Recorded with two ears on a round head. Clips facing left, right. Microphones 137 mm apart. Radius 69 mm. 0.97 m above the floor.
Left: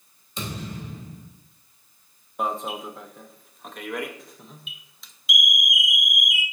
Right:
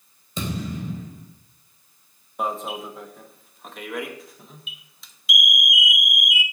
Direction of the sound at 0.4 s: 75° right (ahead or behind).